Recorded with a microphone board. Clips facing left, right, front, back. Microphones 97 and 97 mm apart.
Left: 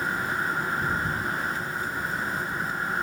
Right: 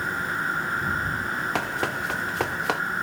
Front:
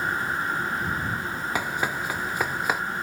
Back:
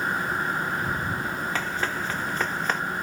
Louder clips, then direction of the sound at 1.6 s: Right 4 dB, front 1 dB; 75° right.